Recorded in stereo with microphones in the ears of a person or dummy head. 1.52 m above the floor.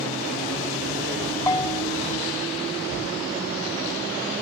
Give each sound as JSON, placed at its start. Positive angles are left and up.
{"t": 1.5, "sound": "a bell", "side_deg": 15}